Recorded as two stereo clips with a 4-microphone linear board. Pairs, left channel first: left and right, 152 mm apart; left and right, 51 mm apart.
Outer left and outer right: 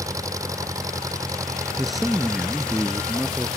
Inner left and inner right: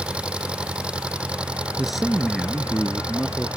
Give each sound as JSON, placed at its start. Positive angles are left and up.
{"t": 0.0, "sound": "an engine running", "side_deg": -20}
{"t": 1.8, "sound": "a man speaking", "side_deg": 0}